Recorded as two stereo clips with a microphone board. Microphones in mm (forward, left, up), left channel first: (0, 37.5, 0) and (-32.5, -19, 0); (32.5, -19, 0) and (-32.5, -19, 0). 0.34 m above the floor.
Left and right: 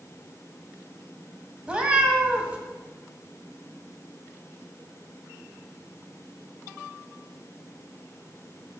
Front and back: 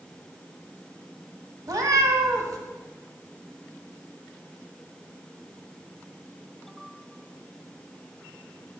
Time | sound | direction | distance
1.7 | a cat meowing | 170° left | 1.0 m